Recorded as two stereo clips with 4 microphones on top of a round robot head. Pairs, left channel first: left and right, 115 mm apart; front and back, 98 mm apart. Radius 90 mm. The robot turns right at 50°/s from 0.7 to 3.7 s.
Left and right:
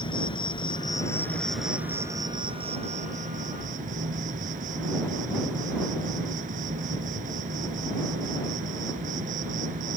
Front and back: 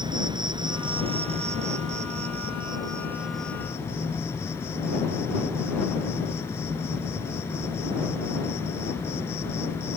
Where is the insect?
135° left; by 10.0 s 75° right.